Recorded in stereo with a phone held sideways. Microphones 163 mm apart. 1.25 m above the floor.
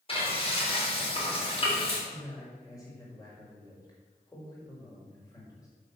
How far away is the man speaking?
About 5.5 m.